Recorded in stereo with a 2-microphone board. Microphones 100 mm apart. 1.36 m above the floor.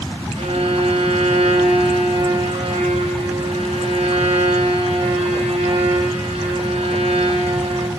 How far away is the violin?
About 5 m.